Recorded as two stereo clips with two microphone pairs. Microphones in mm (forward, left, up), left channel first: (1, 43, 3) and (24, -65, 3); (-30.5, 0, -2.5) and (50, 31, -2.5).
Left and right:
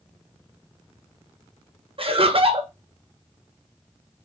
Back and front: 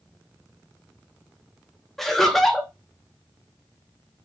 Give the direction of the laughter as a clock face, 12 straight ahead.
2 o'clock.